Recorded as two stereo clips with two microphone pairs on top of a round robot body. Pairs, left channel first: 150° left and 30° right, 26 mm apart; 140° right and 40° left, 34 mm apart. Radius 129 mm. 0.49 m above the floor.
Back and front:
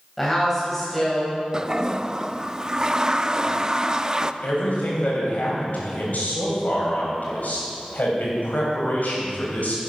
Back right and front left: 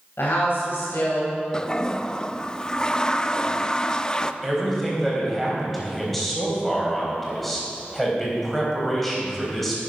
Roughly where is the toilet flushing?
Right.